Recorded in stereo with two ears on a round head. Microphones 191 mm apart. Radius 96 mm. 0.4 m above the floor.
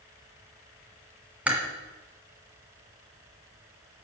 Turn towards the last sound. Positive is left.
turn(degrees=-5)  # may be behind; listen again after turning